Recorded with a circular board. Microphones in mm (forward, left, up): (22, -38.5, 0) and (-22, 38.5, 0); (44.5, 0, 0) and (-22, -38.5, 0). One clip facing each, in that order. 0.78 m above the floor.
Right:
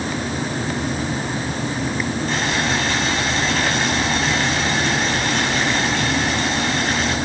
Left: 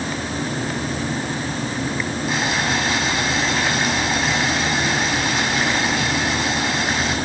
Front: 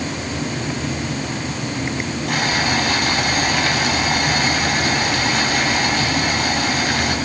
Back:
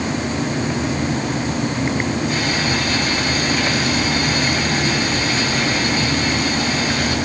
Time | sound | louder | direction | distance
2.3 | boiling | left 1 dB, even | 35° left | 6 m